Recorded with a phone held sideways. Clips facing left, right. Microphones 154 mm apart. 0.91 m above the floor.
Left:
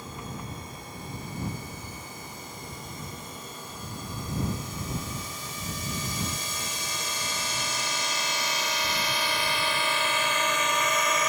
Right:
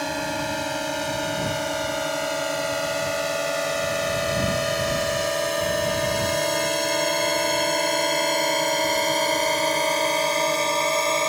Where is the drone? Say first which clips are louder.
Right 13 dB; 75° right (ahead or behind); by 11.3 s 30° right (ahead or behind).